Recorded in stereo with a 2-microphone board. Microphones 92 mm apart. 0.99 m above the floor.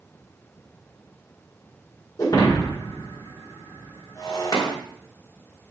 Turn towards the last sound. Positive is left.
turn(degrees=40)  # may be behind; listen again after turning